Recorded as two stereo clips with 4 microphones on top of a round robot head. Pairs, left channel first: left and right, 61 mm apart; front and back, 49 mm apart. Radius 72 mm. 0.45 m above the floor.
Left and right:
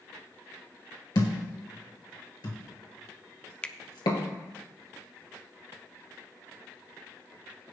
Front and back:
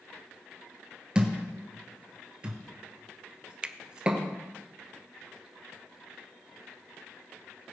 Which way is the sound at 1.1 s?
115° left.